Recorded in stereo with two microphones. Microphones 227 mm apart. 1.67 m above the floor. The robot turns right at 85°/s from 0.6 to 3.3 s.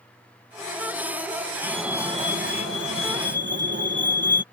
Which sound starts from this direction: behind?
A fire alarm, at 1.6 s.